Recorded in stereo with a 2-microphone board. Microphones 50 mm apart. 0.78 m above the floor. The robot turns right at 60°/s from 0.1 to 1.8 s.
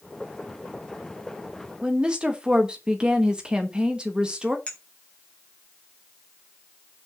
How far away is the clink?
About 3.5 m.